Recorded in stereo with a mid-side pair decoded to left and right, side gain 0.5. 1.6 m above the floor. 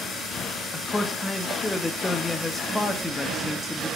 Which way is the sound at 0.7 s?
15° left.